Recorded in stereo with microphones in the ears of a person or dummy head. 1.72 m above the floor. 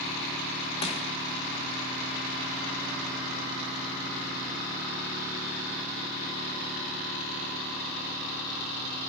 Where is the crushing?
35° left (ahead or behind), 3.5 m.